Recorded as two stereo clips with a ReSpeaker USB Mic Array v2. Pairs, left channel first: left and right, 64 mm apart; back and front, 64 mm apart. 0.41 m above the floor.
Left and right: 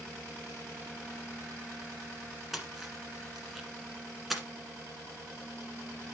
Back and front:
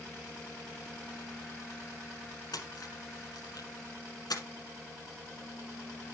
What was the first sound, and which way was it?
A splash, 175° right.